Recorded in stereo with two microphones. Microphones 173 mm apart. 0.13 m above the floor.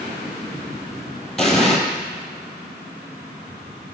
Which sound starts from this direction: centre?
An explosion, at 1.4 s.